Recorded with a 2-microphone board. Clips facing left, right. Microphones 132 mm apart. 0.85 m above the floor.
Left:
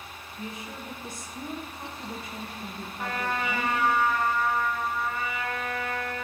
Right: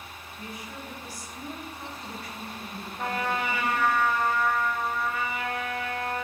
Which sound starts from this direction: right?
A trumpet, at 3.0 s.